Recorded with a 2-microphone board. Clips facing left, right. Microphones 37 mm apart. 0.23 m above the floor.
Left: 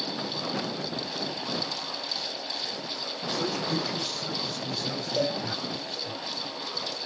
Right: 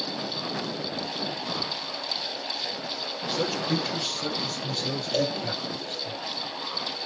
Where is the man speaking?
75° right (ahead or behind), 7 m; by 6.1 s 80° right, 8.5 m.